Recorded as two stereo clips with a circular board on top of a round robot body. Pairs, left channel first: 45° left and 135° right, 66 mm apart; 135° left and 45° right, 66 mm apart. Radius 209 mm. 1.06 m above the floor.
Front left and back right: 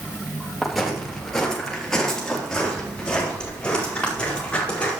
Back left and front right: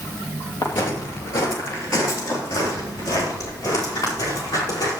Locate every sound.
0.6 s footsteps: 135° left, 2.5 m; by 5.0 s 115° left, 5.5 m